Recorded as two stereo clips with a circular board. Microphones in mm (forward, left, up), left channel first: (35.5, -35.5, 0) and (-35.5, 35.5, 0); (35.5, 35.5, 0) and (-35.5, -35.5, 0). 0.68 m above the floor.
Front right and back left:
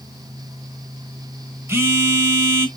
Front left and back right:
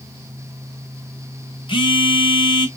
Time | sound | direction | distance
1.7 | a phone buzzing | 75° left | 1.1 m